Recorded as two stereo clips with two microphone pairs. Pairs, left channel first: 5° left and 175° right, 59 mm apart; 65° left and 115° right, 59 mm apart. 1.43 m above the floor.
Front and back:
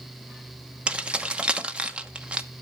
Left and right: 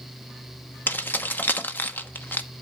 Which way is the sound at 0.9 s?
120° left.